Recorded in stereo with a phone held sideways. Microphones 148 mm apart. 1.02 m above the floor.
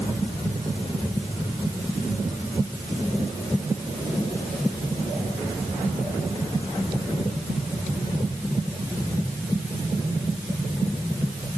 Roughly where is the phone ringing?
I don't hear a phone ringing.